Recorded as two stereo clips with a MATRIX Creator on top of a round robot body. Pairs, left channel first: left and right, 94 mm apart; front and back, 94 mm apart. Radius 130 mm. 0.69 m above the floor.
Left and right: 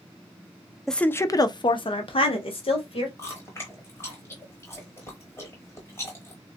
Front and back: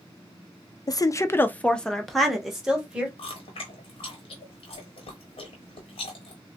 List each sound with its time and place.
0.9 s a woman speaking: 5° left, 0.5 m; by 3.1 s 100° left, 1.3 m
3.2 s chewing: 25° left, 0.8 m